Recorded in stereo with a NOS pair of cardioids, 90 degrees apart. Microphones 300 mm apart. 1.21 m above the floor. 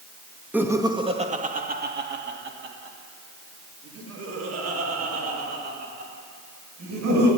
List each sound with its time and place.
0.5 s laughter: 5° right, 2 m; by 7.3 s 65° right, 7.5 m